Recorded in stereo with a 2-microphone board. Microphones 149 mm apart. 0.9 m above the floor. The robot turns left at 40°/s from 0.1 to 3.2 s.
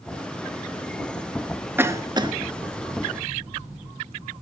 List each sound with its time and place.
1.8 s a cough: 15° right (ahead or behind), 1.0 m; by 2.3 s 35° right (ahead or behind), 1.0 m